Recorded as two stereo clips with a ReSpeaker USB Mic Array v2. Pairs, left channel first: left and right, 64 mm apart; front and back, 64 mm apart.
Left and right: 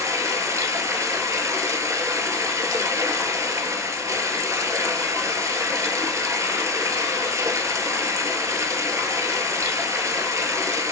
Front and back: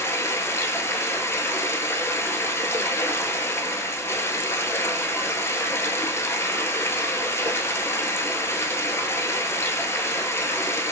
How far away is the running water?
About 0.7 m.